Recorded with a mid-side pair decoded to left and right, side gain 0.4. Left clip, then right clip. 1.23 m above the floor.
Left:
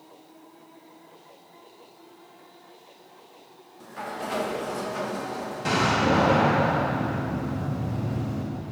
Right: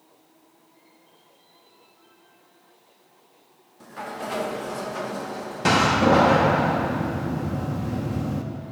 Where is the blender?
No blender in this recording.